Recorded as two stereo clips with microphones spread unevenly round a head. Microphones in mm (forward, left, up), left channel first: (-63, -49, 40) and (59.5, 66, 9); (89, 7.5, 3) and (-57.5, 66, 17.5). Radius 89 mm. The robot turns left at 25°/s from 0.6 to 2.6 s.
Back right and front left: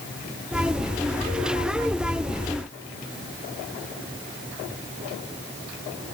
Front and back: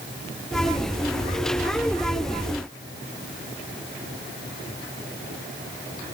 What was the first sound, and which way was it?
Only background noise.